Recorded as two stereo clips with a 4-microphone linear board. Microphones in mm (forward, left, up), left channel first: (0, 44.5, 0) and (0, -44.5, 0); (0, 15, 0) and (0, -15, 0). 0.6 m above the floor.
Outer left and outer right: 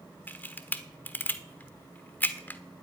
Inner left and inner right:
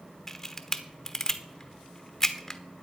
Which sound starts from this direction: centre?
A camera shutter, at 0.3 s.